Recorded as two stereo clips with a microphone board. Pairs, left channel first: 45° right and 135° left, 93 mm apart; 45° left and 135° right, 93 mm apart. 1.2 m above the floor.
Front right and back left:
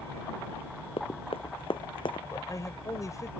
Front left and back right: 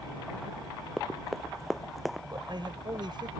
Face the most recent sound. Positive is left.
turn(degrees=-100)